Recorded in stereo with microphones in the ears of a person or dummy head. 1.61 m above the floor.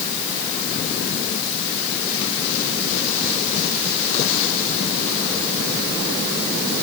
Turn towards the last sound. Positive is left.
No sound to turn to.